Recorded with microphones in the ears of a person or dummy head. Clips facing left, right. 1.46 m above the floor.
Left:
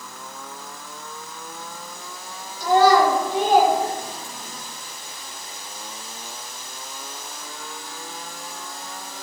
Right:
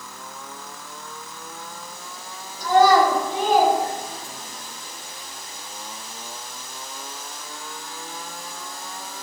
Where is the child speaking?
85° left, 4 m; by 4.6 s 70° left (ahead or behind), 6 m.